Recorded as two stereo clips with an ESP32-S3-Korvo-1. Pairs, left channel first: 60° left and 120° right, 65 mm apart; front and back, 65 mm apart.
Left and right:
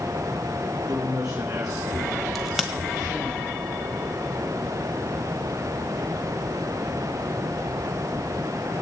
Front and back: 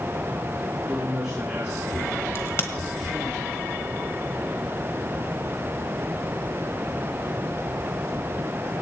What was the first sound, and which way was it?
A man speaking, 100° right.